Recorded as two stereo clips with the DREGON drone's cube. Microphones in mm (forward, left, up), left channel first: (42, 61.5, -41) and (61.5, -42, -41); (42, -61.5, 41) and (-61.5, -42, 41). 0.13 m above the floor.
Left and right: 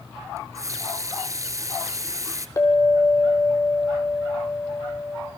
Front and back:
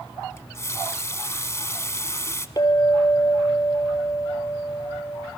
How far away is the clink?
About 2.5 m.